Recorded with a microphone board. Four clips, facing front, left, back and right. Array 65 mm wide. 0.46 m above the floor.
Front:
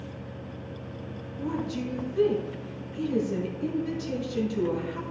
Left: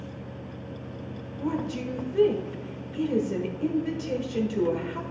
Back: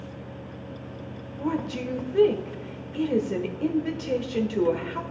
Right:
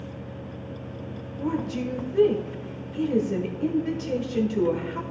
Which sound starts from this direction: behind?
A woman speaking, at 1.4 s.